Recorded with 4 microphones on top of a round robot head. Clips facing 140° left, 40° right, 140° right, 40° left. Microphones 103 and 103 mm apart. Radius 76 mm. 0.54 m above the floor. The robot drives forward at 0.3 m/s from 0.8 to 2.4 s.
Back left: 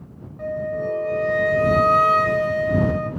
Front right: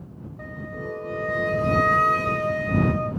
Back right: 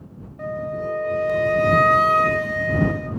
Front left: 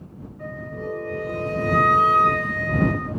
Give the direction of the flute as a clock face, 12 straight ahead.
4 o'clock.